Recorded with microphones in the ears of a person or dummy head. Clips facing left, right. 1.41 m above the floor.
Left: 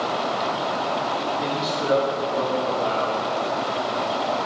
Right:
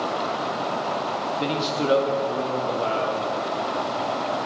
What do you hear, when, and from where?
1.4 s a man speaking: 40° right (ahead or behind), 1.7 m; by 3.2 s 35° right (ahead or behind), 2.5 m